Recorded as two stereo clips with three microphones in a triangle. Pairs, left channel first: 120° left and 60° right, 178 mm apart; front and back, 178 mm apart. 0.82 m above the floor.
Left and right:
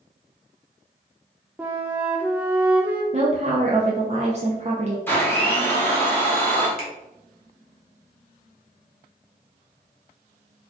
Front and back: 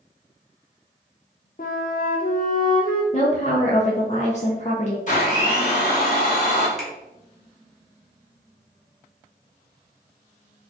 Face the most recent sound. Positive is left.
turn(degrees=90)